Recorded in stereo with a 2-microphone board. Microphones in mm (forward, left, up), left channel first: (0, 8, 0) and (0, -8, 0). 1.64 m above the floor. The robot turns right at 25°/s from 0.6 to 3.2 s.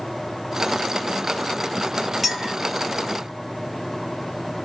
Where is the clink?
15° right (ahead or behind), 1.1 m; by 2.5 s 10° right (ahead or behind), 1.1 m.